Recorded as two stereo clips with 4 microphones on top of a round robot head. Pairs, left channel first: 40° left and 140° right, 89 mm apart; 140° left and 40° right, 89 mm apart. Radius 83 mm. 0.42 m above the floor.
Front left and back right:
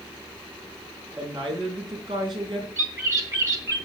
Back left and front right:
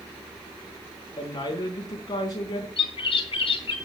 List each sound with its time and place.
1.2 s a woman speaking: 175° right, 4 m
2.8 s a bird: 165° left, 3 m